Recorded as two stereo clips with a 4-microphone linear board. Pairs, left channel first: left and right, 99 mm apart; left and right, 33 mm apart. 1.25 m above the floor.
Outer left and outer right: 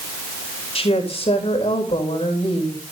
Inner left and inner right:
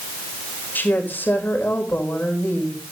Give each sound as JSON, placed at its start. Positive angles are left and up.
{"t": 0.8, "sound": "a woman speaking", "side_deg": 85, "distance_m": 4.5}